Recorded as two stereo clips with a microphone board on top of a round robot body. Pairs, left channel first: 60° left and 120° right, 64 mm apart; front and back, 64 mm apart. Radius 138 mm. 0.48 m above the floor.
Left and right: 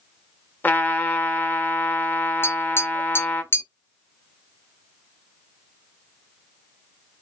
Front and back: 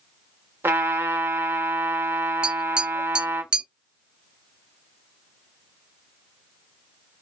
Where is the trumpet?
125° left, 0.8 m.